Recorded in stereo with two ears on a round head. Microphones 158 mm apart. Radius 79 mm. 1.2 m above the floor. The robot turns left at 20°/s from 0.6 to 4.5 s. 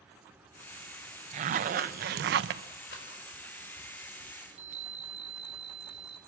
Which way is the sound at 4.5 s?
40° right (ahead or behind).